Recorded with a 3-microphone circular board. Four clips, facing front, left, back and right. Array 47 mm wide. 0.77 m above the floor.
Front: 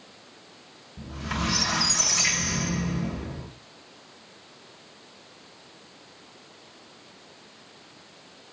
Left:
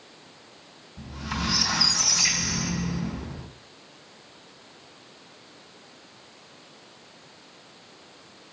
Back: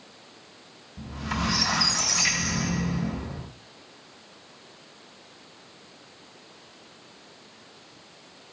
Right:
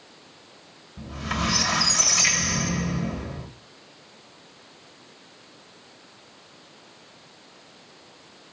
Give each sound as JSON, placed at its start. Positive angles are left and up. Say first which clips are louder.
{"t": 1.0, "sound": "a squeak", "louder": "right 3 dB, back 1 dB", "azimuth_deg": -70, "distance_m": 2.5}